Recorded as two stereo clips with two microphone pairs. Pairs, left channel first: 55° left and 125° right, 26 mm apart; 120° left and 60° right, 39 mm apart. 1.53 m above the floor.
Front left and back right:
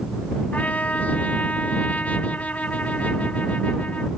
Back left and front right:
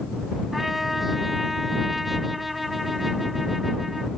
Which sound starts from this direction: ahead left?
A trumpet, at 0.5 s.